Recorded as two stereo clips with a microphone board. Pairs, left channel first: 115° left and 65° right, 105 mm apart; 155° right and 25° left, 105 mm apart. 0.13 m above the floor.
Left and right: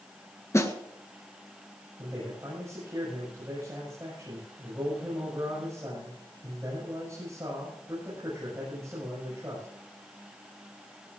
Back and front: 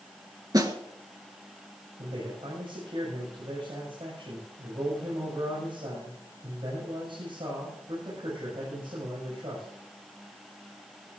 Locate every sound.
0.5 s a snare drum: 60° left, 1.7 m
2.0 s a man speaking: 10° right, 7.5 m